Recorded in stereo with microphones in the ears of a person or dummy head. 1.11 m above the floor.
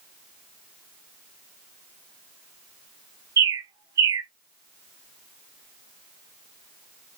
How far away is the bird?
About 0.6 m.